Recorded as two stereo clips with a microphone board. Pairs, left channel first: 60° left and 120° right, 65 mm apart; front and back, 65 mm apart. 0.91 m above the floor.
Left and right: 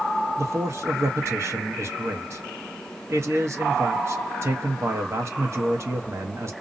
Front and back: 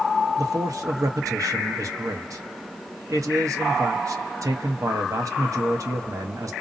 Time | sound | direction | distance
0.4 | a man speaking | 160° right | 0.8 m